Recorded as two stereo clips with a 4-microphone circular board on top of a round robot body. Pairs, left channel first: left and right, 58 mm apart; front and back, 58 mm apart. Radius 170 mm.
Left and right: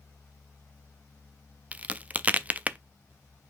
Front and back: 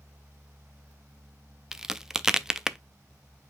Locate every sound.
1.7 s a crack: 110° right, 0.6 m